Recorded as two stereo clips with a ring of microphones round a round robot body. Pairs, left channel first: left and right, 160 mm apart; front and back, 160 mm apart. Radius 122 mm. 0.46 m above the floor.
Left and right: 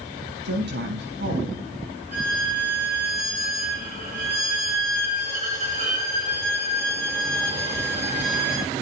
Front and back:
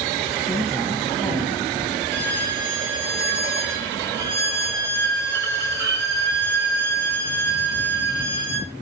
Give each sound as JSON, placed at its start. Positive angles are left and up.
{"t": 0.5, "sound": "a woman speaking", "azimuth_deg": -90, "distance_m": 4.5}
{"t": 2.1, "sound": "a violin", "azimuth_deg": -150, "distance_m": 6.0}